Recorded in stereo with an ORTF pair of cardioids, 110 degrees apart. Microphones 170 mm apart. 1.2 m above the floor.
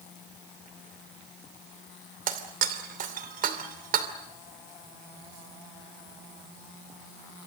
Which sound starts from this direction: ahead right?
Breaking glass, at 2.3 s.